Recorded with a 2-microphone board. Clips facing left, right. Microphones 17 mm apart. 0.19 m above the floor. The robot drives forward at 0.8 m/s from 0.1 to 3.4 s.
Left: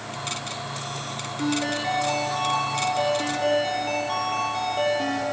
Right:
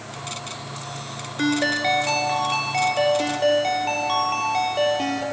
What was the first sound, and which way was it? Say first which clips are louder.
A ringtone: right 5 dB; 50° right (ahead or behind).